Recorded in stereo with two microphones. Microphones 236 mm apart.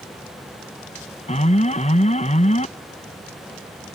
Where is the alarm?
30° left (ahead or behind).